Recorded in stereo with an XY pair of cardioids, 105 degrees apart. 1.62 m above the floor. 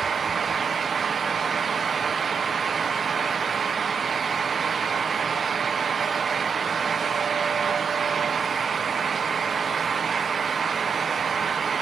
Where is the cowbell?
I don't hear a cowbell.